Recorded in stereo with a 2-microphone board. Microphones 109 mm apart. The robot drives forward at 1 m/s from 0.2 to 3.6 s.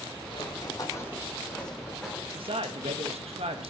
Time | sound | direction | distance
0.3 | running footsteps | 55° left (ahead or behind) | 2.5 m
2.3 | a man speaking | 60° right (ahead or behind) | 1.5 m